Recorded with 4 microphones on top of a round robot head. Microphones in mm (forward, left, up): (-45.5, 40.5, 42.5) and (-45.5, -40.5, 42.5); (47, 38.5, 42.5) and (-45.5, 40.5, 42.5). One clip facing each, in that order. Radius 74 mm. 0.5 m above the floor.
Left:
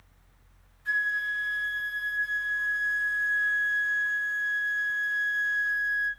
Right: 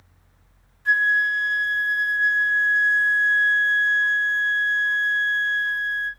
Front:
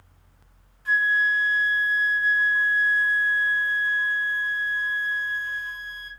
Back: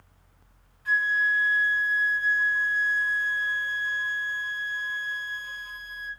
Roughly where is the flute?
Ahead right.